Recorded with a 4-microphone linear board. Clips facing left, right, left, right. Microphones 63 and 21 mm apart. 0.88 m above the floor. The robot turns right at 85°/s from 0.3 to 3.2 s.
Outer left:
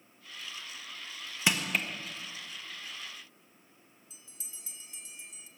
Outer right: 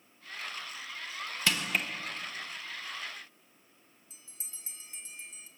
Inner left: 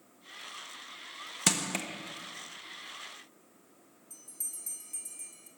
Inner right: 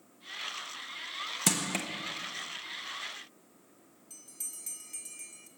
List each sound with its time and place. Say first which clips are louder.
1.5 s crushing: outer left 1 dB, inner left 1 dB; 20° left (ahead or behind), 1.0 m; by 1.9 s 5° right (ahead or behind), 1.0 m
4.1 s a bell: even, inner left 1 dB; 40° right (ahead or behind), 1.2 m